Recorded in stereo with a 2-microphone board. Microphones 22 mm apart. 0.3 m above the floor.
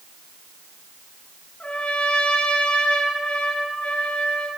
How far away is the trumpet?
About 4.5 m.